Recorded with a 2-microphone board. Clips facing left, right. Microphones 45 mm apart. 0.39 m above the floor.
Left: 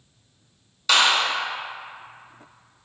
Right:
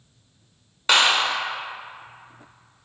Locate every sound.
0.9 s a clap: 35° right (ahead or behind), 0.7 m